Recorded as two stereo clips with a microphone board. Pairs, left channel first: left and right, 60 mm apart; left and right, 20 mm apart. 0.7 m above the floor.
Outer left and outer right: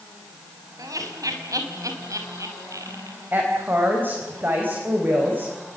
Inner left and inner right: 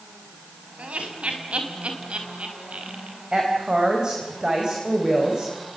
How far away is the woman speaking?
About 4.5 m.